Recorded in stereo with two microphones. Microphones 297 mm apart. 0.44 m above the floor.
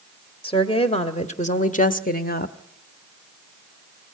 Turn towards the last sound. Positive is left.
turn(degrees=30)  # may be behind; listen again after turning